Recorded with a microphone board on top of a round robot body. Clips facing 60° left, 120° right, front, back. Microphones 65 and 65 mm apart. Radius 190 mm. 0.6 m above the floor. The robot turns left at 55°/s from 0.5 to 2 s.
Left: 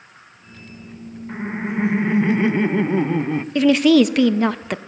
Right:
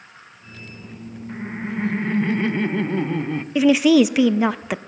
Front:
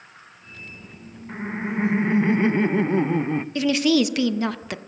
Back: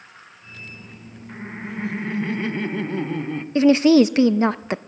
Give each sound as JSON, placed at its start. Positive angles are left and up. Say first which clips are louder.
{"t": 1.3, "sound": "laughter", "louder": "left 3 dB, front 5 dB", "azimuth_deg": 45, "distance_m": 0.8}
{"t": 3.5, "sound": "a woman speaking", "louder": "left 1 dB, back 7 dB", "azimuth_deg": 160, "distance_m": 0.6}